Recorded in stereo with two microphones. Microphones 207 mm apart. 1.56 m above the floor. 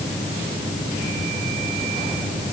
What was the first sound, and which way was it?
Only background noise.